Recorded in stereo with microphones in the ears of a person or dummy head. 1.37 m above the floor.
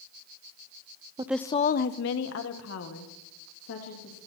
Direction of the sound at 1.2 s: 20° right (ahead or behind).